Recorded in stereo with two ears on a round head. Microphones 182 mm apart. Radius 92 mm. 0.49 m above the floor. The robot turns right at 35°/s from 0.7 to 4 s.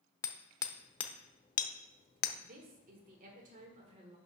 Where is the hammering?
15° left (ahead or behind), 0.6 m; by 2.3 s 55° left (ahead or behind), 0.6 m.